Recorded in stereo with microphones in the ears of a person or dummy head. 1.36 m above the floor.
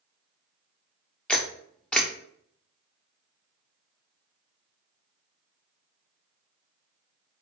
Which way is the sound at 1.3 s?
5° left (ahead or behind).